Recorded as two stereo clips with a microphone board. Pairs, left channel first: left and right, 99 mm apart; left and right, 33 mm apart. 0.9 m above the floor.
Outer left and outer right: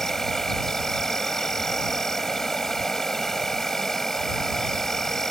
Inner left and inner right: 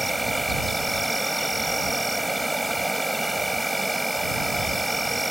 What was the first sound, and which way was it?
An insect, 5° left (ahead or behind).